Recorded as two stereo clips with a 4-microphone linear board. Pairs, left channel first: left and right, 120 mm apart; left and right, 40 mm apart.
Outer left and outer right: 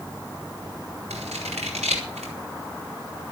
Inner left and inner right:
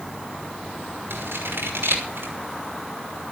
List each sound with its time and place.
1.1 s scissors: 80° right, 5.5 m